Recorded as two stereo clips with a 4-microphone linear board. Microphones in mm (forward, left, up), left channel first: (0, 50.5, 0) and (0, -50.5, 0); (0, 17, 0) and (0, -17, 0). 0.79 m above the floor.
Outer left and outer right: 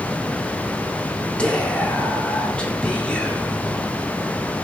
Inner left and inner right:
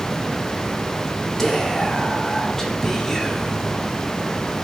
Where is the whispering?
10° left (ahead or behind), 1.5 m.